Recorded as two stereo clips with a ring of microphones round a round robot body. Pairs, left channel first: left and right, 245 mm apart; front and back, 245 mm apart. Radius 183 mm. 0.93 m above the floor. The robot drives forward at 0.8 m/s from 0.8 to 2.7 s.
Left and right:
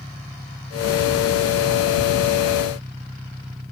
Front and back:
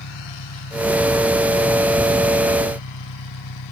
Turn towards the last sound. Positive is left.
turn(degrees=-10)